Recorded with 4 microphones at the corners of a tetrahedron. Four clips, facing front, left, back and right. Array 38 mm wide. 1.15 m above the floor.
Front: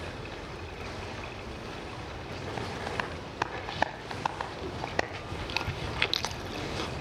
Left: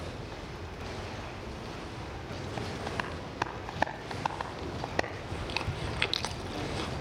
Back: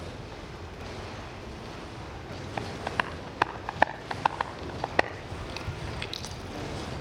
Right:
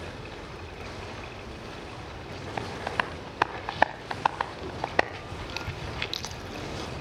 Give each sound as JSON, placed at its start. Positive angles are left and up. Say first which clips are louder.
{"t": 0.0, "sound": "running water", "louder": "right 1 dB, front 2 dB", "azimuth_deg": -40, "distance_m": 2.5}
{"t": 2.6, "sound": "tapping", "louder": "right 6 dB, back 4 dB", "azimuth_deg": -125, "distance_m": 1.4}
{"t": 5.3, "sound": "chewing", "louder": "left 1 dB, front 4 dB", "azimuth_deg": 30, "distance_m": 1.2}